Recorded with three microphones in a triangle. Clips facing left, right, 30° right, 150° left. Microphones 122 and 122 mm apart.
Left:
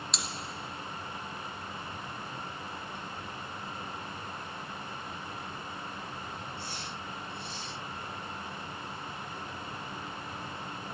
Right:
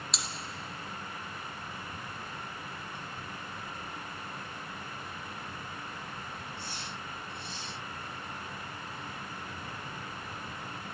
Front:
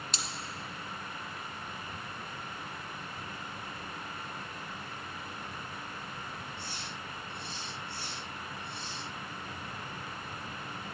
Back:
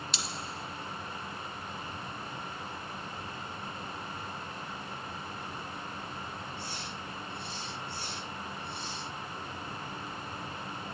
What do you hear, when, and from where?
0.1 s cutlery clinking: straight ahead, 0.9 m